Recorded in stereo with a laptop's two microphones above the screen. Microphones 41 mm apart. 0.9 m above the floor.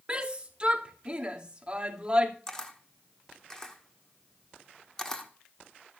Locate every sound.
0.1 s a shout: 25° right (ahead or behind), 2.5 m
2.5 s a camera shutter: 15° left (ahead or behind), 1.2 m